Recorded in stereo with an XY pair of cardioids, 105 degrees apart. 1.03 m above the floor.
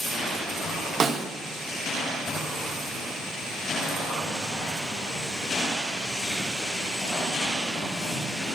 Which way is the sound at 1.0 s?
50° right.